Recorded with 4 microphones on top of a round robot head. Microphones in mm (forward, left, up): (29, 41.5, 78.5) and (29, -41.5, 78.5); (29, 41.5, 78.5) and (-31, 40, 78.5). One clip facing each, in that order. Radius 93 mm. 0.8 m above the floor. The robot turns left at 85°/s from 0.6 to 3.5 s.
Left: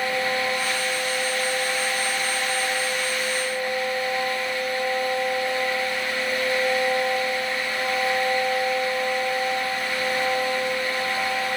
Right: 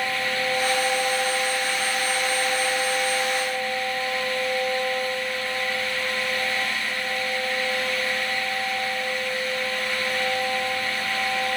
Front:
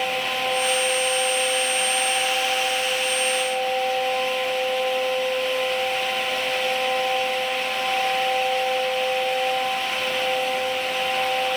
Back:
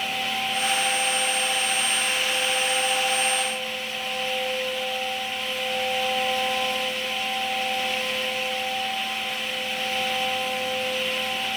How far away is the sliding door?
I don't hear a sliding door.